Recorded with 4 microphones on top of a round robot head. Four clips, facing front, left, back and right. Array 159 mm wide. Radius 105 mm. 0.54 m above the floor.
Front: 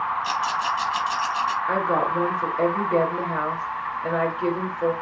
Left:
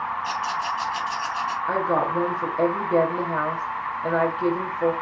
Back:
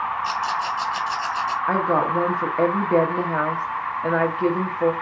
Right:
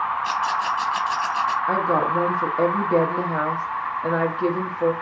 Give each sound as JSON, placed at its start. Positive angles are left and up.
{"t": 0.2, "sound": "a rattle", "azimuth_deg": -75, "distance_m": 0.9}
{"t": 1.7, "sound": "a woman speaking", "azimuth_deg": -155, "distance_m": 1.0}